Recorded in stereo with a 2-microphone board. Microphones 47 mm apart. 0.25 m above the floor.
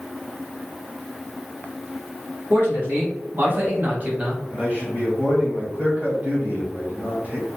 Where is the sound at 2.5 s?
55° right (ahead or behind), 2.0 m; by 4.4 s 25° right (ahead or behind), 1.1 m.